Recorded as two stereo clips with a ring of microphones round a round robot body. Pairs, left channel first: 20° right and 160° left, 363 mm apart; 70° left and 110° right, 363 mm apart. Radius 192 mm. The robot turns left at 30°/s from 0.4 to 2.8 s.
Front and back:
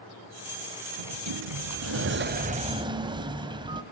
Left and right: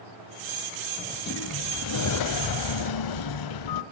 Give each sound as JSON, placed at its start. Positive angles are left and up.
{"t": 1.0, "sound": "a sliding door", "azimuth_deg": 135, "distance_m": 1.3}